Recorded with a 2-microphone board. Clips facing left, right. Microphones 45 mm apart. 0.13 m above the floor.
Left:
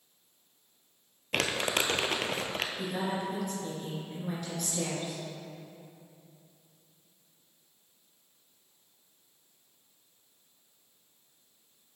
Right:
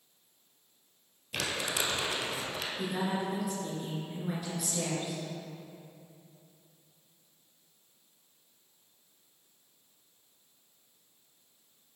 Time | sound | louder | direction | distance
1.3 | crumpling | left 4 dB | 55° left (ahead or behind) | 0.7 m
2.8 | a woman speaking | right 4 dB | 5° right (ahead or behind) | 2.5 m